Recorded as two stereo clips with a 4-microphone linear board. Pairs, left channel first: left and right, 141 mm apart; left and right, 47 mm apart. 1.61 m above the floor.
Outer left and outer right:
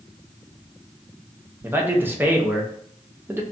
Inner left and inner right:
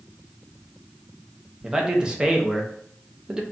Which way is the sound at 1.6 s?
15° right (ahead or behind).